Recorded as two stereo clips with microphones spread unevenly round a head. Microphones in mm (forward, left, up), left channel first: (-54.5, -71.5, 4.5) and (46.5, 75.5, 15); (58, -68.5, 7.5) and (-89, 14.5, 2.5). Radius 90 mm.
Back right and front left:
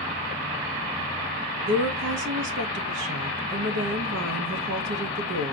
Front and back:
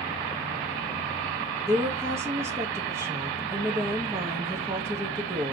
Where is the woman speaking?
75° left, 1.3 m.